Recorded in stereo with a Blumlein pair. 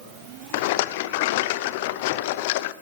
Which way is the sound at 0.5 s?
50° left.